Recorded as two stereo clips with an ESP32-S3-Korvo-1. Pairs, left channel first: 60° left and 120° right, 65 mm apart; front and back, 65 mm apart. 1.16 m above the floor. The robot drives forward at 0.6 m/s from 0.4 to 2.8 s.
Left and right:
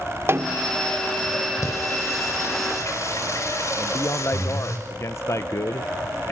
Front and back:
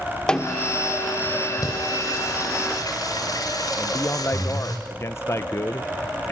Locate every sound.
0.3 s a snare drum: 75° right, 1.2 m; by 0.8 s 90° right, 1.2 m
1.6 s singing: 15° left, 7 m; by 4.8 s 20° left, 6 m
3.8 s a man speaking: 35° left, 0.8 m